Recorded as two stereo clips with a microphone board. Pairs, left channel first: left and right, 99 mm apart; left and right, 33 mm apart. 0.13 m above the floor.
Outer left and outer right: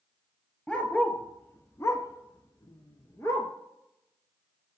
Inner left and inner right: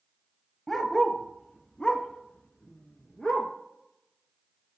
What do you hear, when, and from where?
0.7 s a dog barking: 10° left (ahead or behind), 1.2 m; by 3.5 s 25° left (ahead or behind), 1.3 m